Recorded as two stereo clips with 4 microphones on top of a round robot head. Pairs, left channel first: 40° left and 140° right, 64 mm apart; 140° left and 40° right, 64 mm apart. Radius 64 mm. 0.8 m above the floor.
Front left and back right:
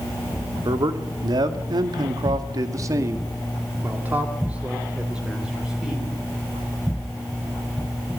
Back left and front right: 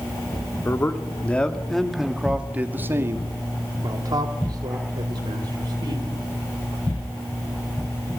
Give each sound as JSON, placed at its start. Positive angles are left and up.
{"t": 0.7, "sound": "a man speaking", "azimuth_deg": -165, "distance_m": 2.0}